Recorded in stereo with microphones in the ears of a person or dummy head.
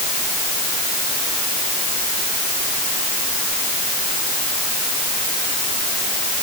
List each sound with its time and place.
Only background noise.